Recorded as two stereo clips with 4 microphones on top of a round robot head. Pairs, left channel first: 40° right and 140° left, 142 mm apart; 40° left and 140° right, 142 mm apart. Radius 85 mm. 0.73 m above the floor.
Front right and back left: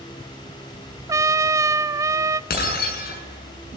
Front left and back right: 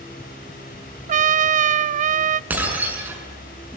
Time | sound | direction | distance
1.1 | a trumpet | 155° right | 0.6 m
2.5 | breaking glass | 60° right | 6 m